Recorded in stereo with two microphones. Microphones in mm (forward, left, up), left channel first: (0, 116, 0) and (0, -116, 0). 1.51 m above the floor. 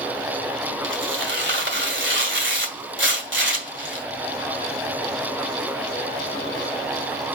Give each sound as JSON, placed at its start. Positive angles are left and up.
{"t": 0.8, "sound": "tearing paper", "side_deg": -55, "distance_m": 2.0}